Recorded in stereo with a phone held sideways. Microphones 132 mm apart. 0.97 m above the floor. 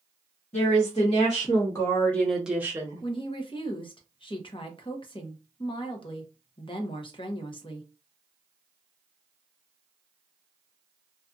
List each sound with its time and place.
0.5 s a woman speaking: 55° left (ahead or behind), 1.4 m; by 3.0 s 30° right (ahead or behind), 0.9 m
3.0 s a woman speaking: 40° left (ahead or behind), 0.8 m